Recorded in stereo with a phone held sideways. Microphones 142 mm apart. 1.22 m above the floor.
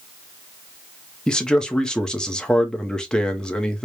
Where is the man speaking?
5° left (ahead or behind), 0.6 m.